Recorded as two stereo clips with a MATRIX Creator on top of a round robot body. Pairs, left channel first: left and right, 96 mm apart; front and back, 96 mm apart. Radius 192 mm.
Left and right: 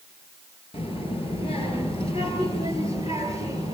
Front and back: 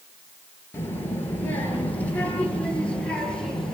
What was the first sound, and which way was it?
A child speaking, 70° left.